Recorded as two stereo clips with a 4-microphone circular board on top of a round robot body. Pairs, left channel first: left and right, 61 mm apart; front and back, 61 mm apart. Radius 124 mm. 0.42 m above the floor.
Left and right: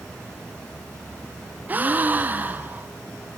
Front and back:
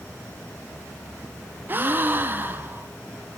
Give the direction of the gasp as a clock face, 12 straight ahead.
5 o'clock.